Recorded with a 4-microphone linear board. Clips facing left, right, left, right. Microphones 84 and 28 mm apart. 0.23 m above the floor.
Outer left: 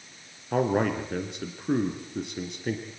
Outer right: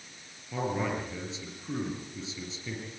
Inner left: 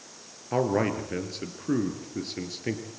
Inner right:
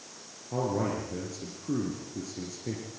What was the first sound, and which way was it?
A man speaking, 60° left (ahead or behind).